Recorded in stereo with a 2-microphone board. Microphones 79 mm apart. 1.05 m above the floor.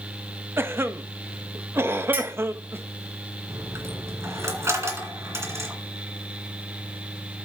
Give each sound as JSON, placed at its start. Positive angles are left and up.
{"t": 0.6, "sound": "a cough", "side_deg": -30, "distance_m": 0.8}
{"t": 2.1, "sound": "a clink", "side_deg": -25, "distance_m": 1.9}
{"t": 3.5, "sound": "a dropped coin", "side_deg": -40, "distance_m": 2.5}